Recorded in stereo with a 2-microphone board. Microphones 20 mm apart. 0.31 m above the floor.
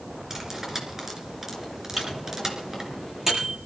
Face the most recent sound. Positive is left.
turn(degrees=-20)  # may be behind; listen again after turning